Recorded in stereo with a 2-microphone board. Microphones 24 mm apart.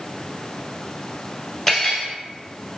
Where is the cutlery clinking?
Centre (ahead or behind), 1.2 m.